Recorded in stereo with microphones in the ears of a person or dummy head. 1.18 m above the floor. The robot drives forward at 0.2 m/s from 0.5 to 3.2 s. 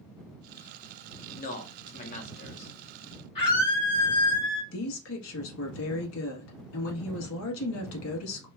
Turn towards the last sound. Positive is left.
turn(degrees=80)